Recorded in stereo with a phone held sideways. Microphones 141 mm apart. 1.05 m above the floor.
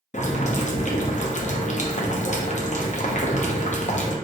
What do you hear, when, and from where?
0.1 s boiling: 55° left (ahead or behind), 0.6 m